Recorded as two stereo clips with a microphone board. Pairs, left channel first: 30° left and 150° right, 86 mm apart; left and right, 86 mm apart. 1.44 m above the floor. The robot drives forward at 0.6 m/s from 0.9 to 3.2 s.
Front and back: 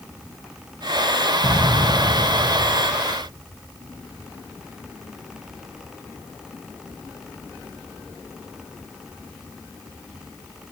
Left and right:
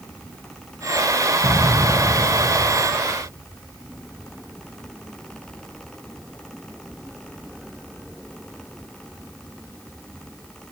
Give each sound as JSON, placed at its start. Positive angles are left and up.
{"t": 1.4, "sound": "an explosion", "azimuth_deg": -135, "distance_m": 1.9}